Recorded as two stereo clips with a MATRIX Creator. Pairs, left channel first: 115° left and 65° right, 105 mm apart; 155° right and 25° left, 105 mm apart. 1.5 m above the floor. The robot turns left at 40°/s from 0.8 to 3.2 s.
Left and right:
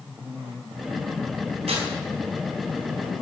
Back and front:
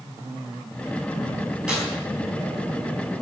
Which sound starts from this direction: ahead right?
Tearing paper, at 1.7 s.